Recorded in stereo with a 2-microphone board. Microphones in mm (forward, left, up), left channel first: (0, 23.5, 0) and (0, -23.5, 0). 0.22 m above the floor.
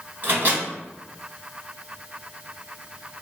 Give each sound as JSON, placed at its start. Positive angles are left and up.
{"t": 0.2, "sound": "a microwave", "side_deg": -40, "distance_m": 1.4}